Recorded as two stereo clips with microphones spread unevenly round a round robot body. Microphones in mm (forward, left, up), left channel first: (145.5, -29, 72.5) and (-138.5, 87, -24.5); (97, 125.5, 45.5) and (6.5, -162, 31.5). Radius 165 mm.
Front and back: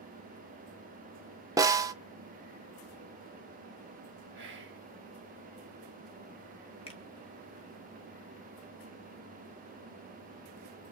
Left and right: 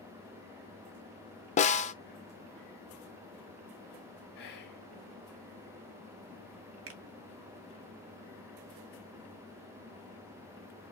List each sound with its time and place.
1.6 s a snare drum: 125° left, 0.5 m
4.3 s whispering: 130° left, 1.6 m
6.9 s a finger snap: 105° right, 1.0 m